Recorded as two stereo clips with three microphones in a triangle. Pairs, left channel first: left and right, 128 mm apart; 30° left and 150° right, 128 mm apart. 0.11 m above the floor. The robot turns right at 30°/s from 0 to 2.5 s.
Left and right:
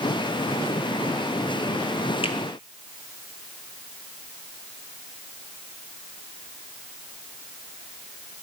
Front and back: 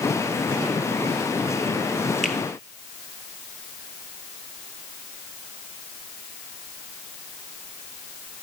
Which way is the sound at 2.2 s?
115° left.